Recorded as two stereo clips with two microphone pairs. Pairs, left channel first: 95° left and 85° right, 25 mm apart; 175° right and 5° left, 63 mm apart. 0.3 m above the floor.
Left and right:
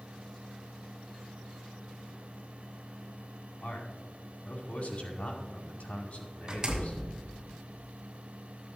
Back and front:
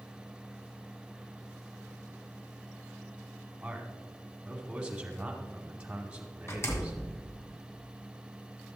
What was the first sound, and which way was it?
A man speaking, 75° left.